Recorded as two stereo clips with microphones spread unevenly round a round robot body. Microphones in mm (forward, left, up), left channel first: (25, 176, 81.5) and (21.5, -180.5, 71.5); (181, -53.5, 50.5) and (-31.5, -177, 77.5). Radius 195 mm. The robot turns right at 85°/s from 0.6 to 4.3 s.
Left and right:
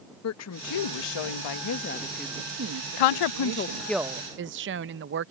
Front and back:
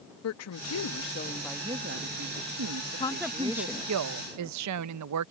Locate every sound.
0.2 s a woman speaking: 40° left; by 3.9 s 40° right
3.0 s a woman speaking: 100° left; by 5.3 s 150° right